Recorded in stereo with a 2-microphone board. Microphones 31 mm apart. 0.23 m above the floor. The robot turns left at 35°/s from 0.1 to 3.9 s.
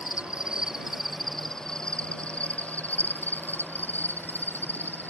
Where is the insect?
145° right; by 5.1 s 85° left.